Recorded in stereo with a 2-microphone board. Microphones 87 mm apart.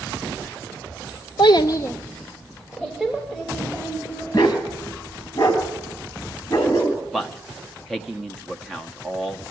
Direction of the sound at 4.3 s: 45° left (ahead or behind).